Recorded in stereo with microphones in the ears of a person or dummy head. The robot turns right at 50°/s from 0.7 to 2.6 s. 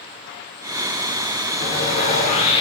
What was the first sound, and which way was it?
Sawing, 100° left.